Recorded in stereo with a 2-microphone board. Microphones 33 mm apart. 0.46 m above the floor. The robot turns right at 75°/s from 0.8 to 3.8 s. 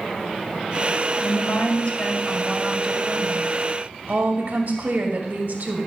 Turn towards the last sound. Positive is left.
turn(degrees=-85)